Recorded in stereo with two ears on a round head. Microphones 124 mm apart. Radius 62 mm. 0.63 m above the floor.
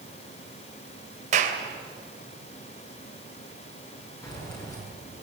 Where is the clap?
60° right (ahead or behind), 3 m.